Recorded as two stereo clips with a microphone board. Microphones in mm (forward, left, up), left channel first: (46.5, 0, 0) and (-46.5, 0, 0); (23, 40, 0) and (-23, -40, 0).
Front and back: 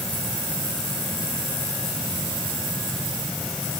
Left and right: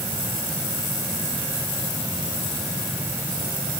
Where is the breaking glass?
I don't hear breaking glass.